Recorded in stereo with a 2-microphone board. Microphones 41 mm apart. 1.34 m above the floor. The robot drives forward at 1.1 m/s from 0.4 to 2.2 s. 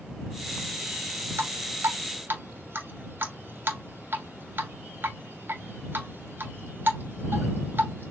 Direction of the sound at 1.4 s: 70° right (ahead or behind).